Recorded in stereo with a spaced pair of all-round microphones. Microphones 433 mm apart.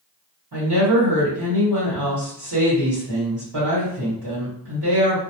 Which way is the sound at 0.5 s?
60° right (ahead or behind).